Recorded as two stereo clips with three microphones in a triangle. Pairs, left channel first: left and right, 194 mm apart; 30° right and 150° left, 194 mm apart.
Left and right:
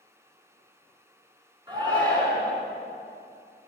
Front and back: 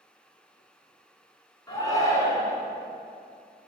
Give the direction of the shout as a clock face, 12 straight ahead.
2 o'clock.